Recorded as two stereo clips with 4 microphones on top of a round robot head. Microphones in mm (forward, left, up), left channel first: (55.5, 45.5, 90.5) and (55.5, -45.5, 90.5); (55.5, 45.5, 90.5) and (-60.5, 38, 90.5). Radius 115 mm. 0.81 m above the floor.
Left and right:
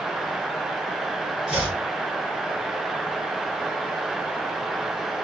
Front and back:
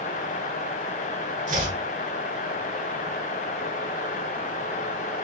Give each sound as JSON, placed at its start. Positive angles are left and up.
{"t": 1.5, "sound": "chopping", "azimuth_deg": 180, "distance_m": 1.1}